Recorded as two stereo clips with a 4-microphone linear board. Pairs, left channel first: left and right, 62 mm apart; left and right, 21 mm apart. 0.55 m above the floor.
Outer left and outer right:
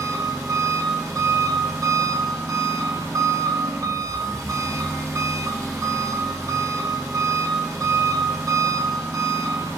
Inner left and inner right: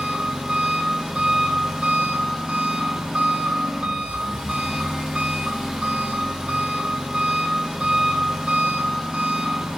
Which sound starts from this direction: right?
An engine running, at 0.0 s.